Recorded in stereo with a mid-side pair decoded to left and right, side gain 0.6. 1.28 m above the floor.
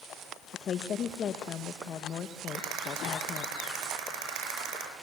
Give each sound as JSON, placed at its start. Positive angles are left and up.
{"t": 0.5, "sound": "a woman speaking", "azimuth_deg": 45, "distance_m": 1.6}
{"t": 2.5, "sound": "a rattle", "azimuth_deg": -65, "distance_m": 8.0}